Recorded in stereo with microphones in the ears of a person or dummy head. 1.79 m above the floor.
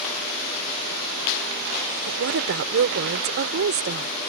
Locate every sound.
2.1 s a woman speaking: 65° right (ahead or behind); by 4.1 s 55° right (ahead or behind)